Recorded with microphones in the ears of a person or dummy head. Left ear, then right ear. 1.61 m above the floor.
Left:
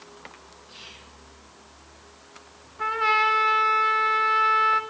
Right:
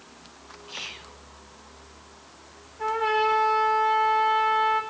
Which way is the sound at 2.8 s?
55° left (ahead or behind).